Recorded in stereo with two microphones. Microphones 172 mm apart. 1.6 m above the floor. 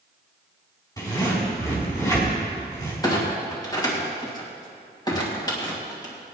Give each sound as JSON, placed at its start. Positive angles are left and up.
{"t": 1.0, "sound": "a zipper", "side_deg": 20, "distance_m": 4.5}
{"t": 3.0, "sound": "a clunk", "side_deg": 20, "distance_m": 2.5}